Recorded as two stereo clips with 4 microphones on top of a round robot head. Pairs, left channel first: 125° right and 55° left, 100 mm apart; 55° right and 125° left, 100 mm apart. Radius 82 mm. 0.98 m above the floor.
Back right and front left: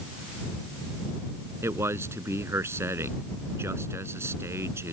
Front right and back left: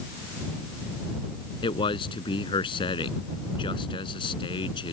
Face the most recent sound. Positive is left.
turn(degrees=-10)